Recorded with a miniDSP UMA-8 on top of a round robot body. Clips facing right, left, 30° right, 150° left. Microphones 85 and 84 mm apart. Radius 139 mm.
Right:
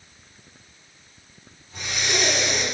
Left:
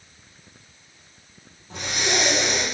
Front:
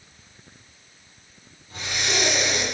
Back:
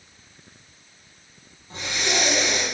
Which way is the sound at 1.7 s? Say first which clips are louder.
Left 2 dB, back 1 dB; 90° left.